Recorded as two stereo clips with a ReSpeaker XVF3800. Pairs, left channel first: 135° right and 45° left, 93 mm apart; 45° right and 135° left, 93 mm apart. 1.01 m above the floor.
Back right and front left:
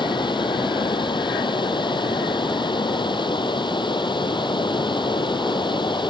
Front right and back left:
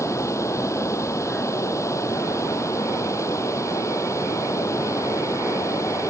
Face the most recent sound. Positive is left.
turn(degrees=-105)